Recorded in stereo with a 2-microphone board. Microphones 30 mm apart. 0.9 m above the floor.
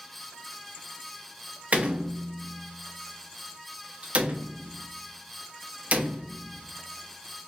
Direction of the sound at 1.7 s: 45° right (ahead or behind).